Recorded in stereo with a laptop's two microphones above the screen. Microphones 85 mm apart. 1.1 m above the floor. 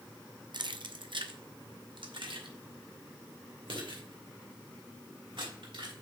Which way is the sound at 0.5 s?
60° right (ahead or behind).